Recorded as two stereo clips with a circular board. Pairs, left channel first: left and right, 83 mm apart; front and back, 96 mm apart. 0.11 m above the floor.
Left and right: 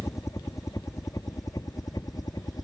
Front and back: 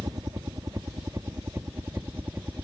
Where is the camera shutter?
No camera shutter in this recording.